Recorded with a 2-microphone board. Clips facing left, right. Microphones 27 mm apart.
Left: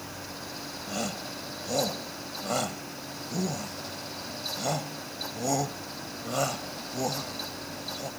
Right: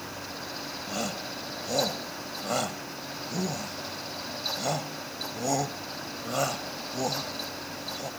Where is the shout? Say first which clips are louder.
Even; 5° right (ahead or behind).